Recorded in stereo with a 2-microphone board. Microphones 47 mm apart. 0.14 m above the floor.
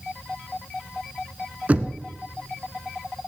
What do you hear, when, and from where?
1.7 s knocking: 30° right (ahead or behind), 1.0 m